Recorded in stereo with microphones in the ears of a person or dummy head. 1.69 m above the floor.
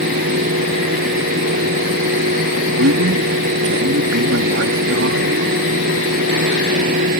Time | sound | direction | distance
0.0 | a fan | 50° right (ahead or behind) | ?
2.8 | a man speaking | 65° right (ahead or behind) | ?